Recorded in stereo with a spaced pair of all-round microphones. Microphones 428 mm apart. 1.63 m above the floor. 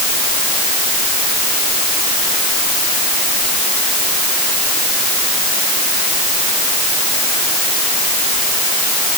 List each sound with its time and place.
Only background noise.